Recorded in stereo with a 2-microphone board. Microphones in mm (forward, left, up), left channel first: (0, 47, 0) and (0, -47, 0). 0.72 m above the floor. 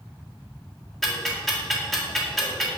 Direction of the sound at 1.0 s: Centre (ahead or behind).